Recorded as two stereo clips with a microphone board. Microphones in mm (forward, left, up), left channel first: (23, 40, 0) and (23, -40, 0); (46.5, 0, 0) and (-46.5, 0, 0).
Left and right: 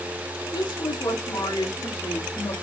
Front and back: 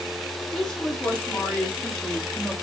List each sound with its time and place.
0.5 s a woman speaking: 80° left, 6.5 m; by 2.5 s 75° left, 4 m